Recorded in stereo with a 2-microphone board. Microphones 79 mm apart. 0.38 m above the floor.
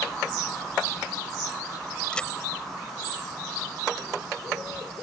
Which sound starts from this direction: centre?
A crack, at 2.1 s.